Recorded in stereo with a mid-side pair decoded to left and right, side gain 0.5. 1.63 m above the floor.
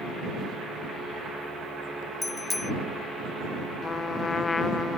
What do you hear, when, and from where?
2.2 s a bicycle bell: 20° left
3.8 s a trumpet: 30° left